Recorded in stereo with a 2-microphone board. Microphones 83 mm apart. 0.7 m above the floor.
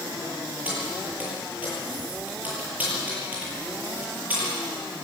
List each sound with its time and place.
0.7 s keys jangling: 20° right (ahead or behind), 10 m